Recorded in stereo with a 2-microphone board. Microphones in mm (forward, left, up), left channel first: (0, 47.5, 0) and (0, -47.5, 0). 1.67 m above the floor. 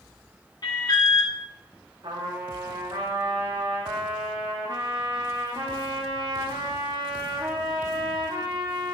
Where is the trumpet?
65° right (ahead or behind), 2 m.